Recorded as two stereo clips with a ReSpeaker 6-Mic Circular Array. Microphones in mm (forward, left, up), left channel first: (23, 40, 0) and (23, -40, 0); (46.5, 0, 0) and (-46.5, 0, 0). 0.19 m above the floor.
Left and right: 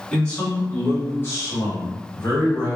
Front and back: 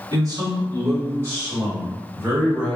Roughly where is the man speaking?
Behind.